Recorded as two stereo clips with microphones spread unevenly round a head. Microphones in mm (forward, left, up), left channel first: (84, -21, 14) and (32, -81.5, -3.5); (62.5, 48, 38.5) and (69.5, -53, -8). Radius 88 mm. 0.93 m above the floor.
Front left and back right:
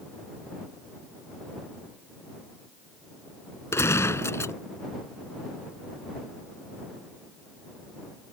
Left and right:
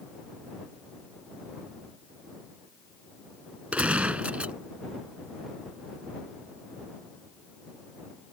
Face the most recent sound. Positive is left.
turn(degrees=-5)